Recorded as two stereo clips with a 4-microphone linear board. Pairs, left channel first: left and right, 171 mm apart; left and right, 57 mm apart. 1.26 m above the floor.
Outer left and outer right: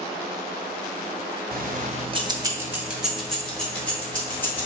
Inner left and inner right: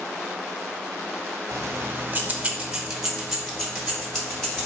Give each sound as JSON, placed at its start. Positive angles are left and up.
{"t": 1.5, "sound": "keys jangling", "side_deg": -65, "distance_m": 0.6}